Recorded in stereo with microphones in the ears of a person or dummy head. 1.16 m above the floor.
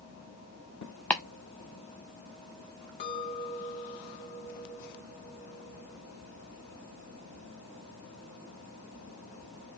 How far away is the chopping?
About 0.6 m.